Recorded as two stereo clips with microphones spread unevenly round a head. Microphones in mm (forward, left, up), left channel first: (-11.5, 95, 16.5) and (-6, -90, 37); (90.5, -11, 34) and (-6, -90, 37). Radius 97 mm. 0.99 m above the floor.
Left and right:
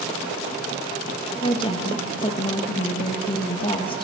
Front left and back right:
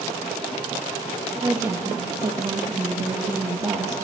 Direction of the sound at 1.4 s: 150° left.